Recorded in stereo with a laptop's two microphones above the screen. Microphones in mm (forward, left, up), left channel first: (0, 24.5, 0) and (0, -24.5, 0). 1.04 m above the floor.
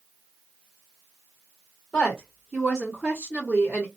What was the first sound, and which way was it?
A woman speaking, centre (ahead or behind).